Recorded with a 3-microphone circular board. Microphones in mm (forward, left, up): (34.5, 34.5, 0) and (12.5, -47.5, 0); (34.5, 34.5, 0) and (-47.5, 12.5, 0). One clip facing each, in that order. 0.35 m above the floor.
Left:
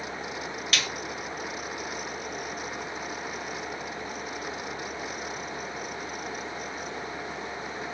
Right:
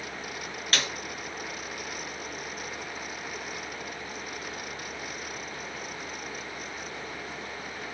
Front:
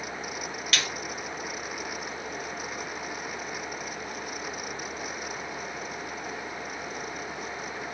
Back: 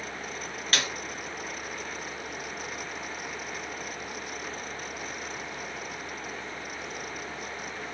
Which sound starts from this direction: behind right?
A snare drum, at 0.7 s.